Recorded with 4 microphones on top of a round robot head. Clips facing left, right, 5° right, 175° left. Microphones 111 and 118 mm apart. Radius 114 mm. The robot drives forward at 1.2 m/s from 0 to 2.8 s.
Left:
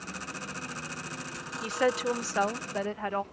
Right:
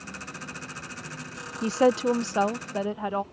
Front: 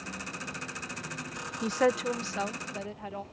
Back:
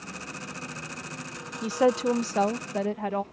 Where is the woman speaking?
95° right; by 3.2 s 165° right.